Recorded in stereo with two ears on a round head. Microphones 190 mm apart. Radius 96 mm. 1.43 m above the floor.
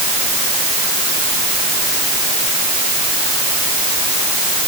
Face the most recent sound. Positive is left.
No sound to turn to.